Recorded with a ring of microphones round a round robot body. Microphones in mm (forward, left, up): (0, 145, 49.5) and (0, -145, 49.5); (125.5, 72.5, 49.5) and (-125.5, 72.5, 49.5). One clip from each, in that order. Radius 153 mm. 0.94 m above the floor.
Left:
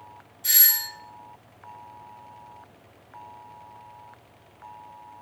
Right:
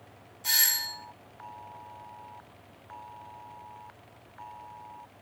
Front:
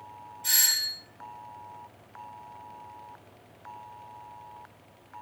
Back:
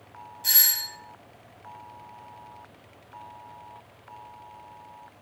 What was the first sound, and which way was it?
A doorbell, 155° left.